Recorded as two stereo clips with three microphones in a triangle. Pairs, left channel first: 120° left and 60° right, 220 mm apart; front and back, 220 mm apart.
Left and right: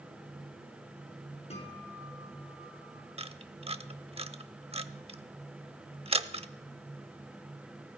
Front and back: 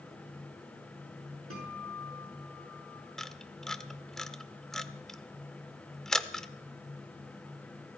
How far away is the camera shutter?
About 0.7 m.